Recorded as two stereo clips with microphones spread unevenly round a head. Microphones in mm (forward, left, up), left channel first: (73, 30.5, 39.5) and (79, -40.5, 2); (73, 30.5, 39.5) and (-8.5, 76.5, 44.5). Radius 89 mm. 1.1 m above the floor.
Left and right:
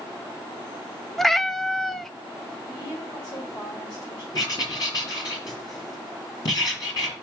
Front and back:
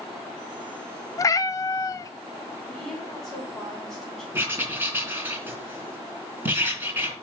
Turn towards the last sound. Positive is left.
turn(degrees=80)